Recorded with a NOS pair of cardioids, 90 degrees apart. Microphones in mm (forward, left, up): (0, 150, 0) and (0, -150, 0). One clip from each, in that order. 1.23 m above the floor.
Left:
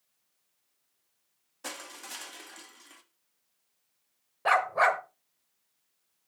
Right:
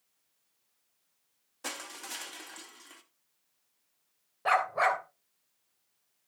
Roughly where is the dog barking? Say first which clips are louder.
Left 2 dB; ahead.